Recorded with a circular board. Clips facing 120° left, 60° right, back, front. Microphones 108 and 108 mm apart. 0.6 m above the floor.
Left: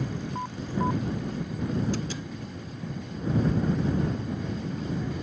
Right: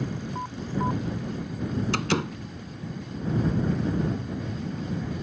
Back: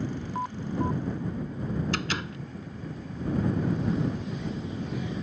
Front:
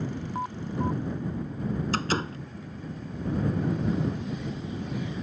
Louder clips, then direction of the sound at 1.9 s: Right 6 dB, front 4 dB; 55° right.